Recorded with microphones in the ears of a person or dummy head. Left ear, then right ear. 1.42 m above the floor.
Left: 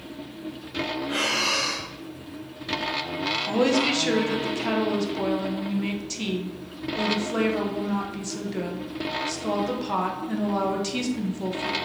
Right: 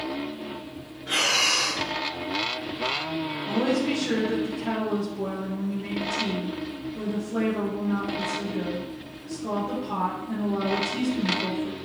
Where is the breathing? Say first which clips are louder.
Right 4 dB; 65° right (ahead or behind), 1.7 m.